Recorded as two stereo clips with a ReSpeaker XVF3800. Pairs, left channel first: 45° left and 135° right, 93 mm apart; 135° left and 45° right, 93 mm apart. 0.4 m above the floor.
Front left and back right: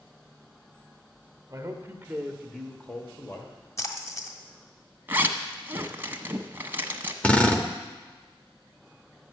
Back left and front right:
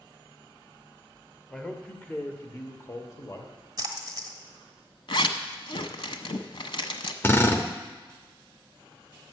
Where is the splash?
5° right, 1.3 m.